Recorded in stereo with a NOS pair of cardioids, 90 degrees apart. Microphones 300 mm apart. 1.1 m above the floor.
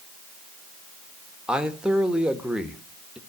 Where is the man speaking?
5° right, 1.5 m.